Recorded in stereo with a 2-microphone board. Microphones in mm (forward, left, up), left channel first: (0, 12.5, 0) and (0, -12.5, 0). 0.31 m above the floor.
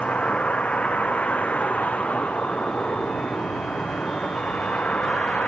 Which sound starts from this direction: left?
A vehicle, at 0.0 s.